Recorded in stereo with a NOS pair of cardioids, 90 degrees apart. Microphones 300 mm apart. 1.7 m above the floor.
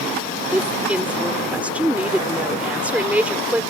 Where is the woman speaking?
5° right.